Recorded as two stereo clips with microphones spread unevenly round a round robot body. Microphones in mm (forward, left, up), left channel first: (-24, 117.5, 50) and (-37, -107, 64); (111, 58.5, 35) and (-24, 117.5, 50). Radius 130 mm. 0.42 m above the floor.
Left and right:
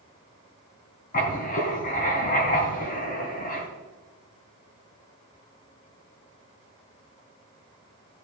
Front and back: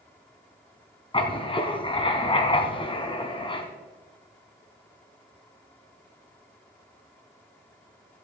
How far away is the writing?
About 2.5 m.